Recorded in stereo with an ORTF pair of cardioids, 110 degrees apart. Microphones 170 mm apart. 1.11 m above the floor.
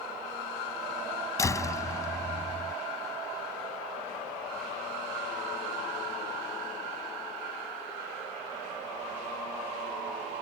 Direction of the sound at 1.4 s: 20° left.